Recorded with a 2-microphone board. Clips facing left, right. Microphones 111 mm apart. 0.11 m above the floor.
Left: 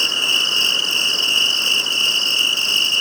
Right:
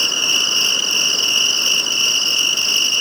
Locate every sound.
0.0 s an insect: 40° left (ahead or behind), 1.6 m